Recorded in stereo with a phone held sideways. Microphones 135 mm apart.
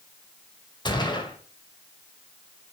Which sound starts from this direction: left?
A gunshot, at 0.8 s.